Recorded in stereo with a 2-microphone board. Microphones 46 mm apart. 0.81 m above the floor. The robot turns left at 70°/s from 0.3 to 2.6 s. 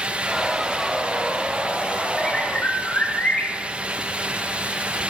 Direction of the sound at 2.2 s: 170° left.